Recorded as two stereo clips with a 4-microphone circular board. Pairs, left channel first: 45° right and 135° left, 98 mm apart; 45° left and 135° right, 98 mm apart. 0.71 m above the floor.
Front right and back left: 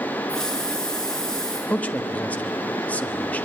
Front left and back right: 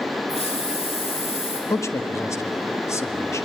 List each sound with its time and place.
0.3 s a hiss: 40° left, 7 m
1.7 s a man speaking: 20° left, 1.3 m